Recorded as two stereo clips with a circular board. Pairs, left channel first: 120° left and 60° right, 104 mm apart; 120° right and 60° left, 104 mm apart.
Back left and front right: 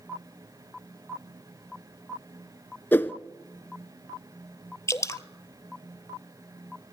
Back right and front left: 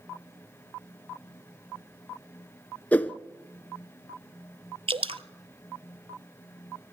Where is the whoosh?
175° left, 0.9 m.